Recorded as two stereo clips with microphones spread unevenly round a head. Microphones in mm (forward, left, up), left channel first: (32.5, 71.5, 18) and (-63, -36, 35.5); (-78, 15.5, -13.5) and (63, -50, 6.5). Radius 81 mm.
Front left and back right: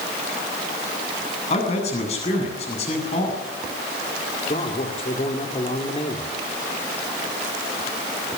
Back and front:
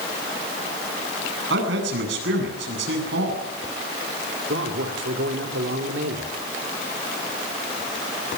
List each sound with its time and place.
1.5 s a man speaking: 5° right, 8.5 m
4.5 s a man speaking: 5° right, 3 m